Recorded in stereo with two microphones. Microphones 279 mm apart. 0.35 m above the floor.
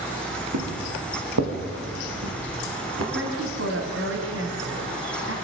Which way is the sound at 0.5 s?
70° right (ahead or behind).